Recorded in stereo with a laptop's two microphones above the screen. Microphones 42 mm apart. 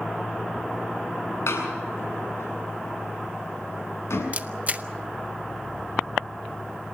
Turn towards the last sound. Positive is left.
turn(degrees=-35)  # may be behind; listen again after turning